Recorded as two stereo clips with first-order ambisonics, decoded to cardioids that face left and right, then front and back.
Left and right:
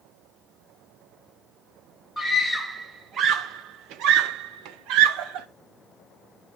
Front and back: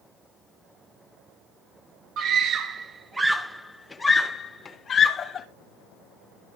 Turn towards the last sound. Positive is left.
turn(degrees=-65)